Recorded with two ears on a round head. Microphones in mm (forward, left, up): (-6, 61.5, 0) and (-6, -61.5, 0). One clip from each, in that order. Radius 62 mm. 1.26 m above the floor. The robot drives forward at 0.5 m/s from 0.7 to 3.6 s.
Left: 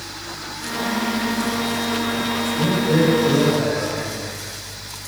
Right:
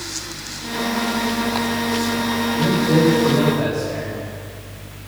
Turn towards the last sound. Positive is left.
turn(degrees=-55)  # may be behind; listen again after turning